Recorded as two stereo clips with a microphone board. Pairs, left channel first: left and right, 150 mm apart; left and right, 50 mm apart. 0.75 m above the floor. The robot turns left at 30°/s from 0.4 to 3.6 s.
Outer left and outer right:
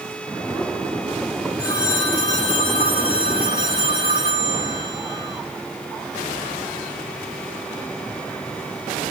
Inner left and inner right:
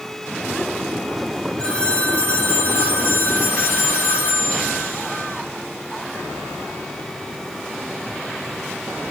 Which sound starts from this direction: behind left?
A phone ringing, at 1.6 s.